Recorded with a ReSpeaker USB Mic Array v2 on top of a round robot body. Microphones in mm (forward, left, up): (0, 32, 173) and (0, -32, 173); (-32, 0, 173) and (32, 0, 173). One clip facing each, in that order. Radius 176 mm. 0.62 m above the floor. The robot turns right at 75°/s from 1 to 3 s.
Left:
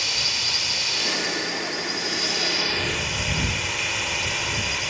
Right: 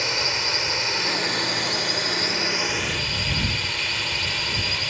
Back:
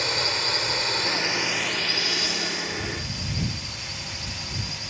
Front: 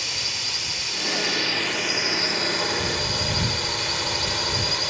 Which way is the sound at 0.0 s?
145° right.